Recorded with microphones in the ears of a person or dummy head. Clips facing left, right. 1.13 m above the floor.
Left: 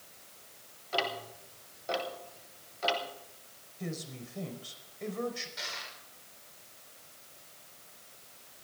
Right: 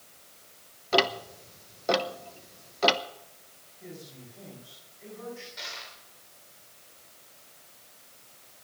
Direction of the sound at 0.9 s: 65° right (ahead or behind).